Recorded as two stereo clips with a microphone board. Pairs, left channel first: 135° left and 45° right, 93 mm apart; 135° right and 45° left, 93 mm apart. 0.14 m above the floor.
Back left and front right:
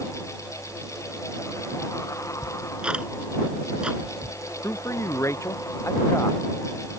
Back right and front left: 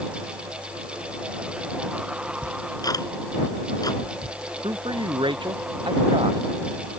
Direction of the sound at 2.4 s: 120° right.